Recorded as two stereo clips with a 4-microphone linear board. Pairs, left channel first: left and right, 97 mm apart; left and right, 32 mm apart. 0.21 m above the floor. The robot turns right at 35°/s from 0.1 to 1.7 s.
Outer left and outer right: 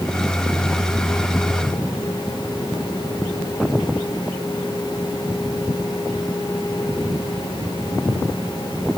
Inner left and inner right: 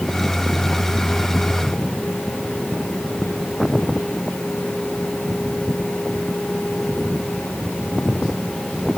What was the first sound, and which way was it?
Only background noise.